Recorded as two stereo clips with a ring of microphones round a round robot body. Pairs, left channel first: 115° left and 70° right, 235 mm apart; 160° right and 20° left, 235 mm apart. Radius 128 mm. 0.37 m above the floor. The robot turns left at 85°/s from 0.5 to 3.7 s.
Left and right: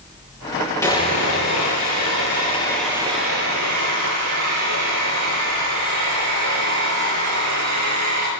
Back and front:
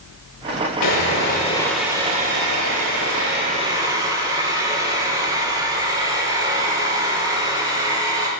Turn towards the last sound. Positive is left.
turn(degrees=-55)